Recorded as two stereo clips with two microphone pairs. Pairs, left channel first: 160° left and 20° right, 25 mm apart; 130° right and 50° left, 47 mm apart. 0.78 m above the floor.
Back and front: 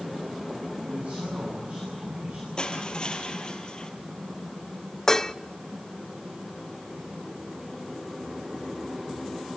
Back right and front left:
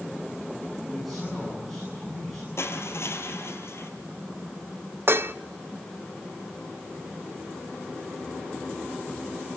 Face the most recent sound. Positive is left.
turn(degrees=90)